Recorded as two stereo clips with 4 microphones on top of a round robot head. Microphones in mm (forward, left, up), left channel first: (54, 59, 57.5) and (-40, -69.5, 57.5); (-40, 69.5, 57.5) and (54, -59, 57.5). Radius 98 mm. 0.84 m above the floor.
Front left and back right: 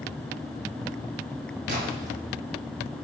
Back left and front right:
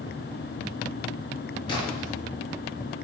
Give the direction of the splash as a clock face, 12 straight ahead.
6 o'clock.